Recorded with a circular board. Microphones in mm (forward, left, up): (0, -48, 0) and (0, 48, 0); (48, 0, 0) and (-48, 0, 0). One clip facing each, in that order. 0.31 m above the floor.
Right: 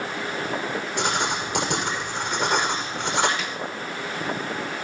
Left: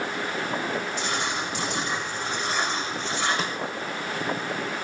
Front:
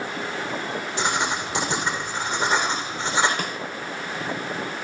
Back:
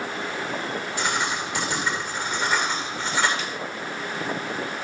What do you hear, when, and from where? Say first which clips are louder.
1.0 s writing: right 3 dB, front 2 dB; 65° right, 7 m
3.4 s a snare drum: left 2 dB, front 2 dB; 40° left, 1.6 m